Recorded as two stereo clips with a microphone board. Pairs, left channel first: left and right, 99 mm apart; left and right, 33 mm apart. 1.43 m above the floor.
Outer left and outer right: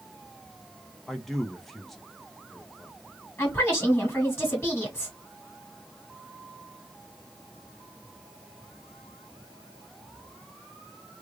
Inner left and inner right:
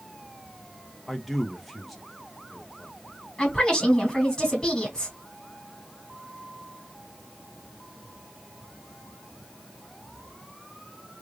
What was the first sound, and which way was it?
A man speaking, centre (ahead or behind).